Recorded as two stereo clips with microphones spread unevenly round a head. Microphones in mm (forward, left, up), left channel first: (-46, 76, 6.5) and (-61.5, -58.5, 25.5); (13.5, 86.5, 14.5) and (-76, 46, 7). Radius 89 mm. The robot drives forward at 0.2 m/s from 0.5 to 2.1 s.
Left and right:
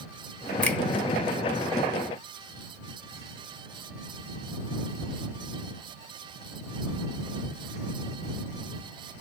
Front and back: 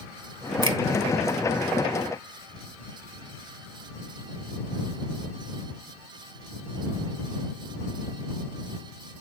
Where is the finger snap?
165° left, 1.8 m.